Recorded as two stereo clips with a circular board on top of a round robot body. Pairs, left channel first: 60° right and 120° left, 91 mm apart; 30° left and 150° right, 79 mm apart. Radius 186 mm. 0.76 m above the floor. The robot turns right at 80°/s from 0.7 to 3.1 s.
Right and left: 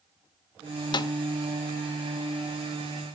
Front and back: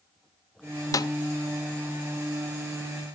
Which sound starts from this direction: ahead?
A snare drum, at 0.9 s.